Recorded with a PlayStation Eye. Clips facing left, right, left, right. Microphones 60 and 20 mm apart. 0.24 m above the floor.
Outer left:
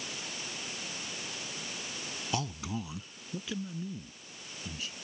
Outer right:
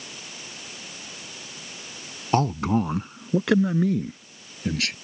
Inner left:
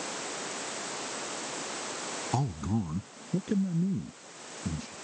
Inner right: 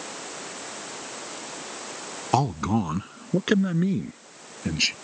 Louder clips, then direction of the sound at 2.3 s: Outer right 15 dB, inner right 10 dB; 45° right (ahead or behind).